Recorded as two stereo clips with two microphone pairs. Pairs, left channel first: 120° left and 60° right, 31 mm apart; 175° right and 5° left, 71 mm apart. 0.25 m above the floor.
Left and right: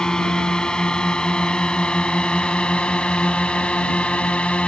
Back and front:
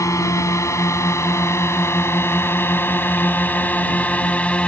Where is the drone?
170° left; by 4.7 s 120° left.